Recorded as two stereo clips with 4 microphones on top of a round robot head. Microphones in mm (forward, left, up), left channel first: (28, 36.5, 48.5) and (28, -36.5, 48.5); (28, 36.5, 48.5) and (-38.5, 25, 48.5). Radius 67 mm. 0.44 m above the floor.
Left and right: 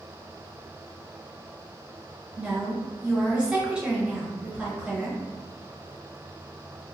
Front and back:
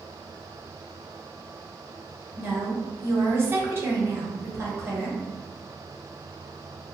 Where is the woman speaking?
160° right, 0.8 m.